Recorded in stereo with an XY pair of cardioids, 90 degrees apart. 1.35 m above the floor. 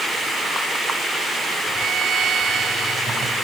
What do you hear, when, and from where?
1.7 s a violin: 65° right